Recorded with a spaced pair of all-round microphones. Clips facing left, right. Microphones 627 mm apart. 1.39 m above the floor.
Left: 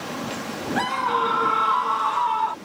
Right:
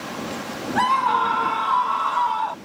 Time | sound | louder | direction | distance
0.8 | a scream | even | 25° right (ahead or behind) | ?